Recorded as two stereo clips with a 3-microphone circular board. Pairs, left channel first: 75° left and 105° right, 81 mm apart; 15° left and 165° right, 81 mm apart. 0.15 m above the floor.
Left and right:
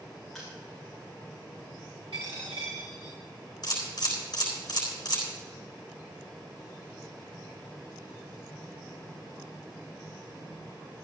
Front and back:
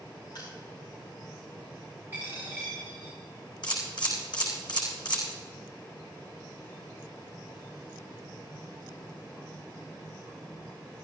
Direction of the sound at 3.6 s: 40° left.